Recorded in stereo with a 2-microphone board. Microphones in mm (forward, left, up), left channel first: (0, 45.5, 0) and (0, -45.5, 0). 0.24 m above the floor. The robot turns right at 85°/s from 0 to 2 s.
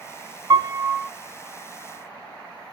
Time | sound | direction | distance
0.5 | a piano | 55° right | 0.6 m